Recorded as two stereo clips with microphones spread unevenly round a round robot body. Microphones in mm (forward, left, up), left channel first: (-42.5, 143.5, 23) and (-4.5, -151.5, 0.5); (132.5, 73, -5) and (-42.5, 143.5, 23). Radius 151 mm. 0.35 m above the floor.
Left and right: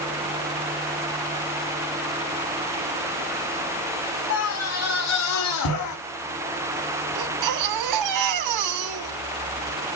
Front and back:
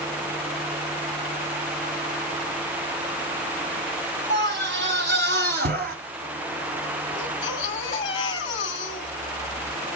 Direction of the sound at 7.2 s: 90° right.